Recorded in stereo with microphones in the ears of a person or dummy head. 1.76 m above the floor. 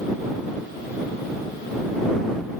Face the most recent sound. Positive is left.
No sound to turn to.